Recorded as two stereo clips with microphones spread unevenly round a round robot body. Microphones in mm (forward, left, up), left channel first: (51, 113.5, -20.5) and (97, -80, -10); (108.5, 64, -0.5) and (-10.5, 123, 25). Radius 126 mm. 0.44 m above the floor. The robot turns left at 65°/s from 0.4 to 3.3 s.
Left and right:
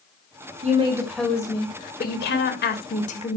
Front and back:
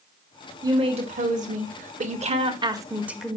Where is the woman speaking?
135° right, 2 m; by 3.4 s 55° left, 2 m.